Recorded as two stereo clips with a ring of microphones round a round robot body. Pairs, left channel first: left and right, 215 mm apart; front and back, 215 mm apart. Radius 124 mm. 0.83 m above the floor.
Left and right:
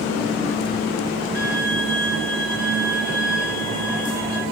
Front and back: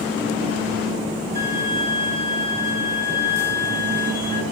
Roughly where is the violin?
Left.